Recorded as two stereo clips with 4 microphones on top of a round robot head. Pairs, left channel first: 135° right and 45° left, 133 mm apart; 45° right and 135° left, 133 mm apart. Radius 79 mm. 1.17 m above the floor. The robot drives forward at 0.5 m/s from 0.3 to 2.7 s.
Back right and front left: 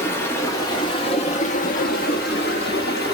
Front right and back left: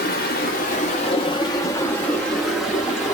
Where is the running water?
65° right, 1.0 m; by 3.1 s 135° right, 1.2 m.